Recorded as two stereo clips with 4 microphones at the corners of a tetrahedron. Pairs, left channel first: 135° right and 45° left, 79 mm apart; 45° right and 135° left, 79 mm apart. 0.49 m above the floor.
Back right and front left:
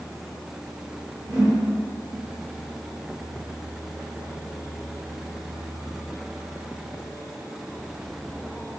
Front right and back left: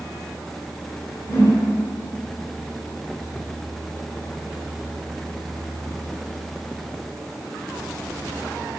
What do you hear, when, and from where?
1.3 s a whoosh: 10° left, 1.6 m